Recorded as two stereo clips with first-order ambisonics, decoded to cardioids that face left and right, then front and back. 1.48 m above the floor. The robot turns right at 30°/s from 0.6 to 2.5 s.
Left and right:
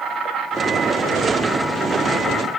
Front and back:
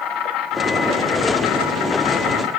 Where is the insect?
30° right, 2.5 m; by 2.6 s 25° left, 2.5 m.